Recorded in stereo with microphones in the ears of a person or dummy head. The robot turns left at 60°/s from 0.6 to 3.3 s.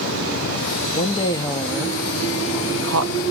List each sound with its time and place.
0.9 s a woman speaking: 50° left (ahead or behind), 0.5 m; by 3.2 s 85° right, 0.5 m